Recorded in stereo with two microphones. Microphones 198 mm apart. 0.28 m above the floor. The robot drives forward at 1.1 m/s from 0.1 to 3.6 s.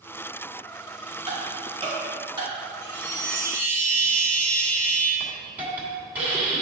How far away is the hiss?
About 2 m.